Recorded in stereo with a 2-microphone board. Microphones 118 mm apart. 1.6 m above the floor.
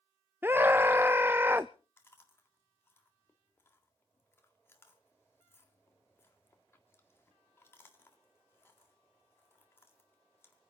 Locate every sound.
0.4 s a scream: 20° right (ahead or behind), 0.5 m
2.0 s chewing: 20° left (ahead or behind), 1.8 m